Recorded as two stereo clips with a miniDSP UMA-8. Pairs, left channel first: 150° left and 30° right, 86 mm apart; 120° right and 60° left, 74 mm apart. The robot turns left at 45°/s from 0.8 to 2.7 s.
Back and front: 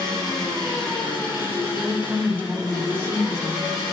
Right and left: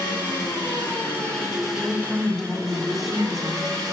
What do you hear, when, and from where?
0.0 s an engine running: 175° right, 3 m; by 3.9 s 100° left, 3 m
1.8 s a woman speaking: 15° left, 1.0 m; by 3.8 s 25° right, 1.0 m